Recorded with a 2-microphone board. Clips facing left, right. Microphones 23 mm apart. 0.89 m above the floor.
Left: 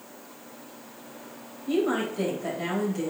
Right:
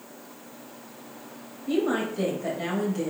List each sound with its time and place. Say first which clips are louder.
1.7 s a woman speaking: even; 5° right (ahead or behind), 3.5 m